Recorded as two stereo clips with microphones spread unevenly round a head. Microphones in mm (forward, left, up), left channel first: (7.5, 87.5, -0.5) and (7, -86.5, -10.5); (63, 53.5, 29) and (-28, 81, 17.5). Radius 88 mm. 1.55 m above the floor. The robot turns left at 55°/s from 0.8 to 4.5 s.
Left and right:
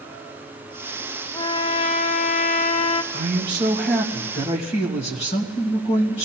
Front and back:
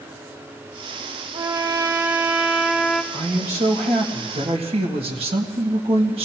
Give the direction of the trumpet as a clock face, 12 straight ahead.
7 o'clock.